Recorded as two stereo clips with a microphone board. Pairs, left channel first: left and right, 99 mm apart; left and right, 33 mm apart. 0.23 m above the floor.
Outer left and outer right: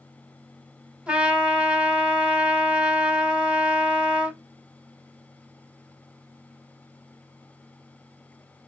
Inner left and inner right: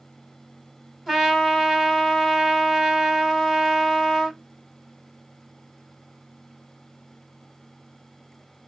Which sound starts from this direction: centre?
A trumpet, at 1.1 s.